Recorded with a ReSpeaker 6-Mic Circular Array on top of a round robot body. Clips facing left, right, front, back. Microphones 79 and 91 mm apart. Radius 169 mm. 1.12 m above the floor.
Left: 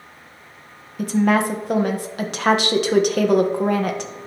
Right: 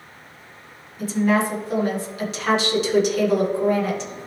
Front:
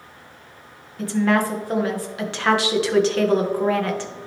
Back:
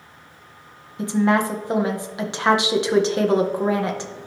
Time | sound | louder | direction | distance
1.0 | a woman speaking | left 2 dB, back 1 dB | 110° left | 1.5 m